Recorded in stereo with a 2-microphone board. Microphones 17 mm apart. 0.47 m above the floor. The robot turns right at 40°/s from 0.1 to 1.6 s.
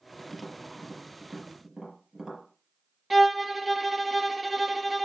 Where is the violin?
10° right (ahead or behind), 0.6 m.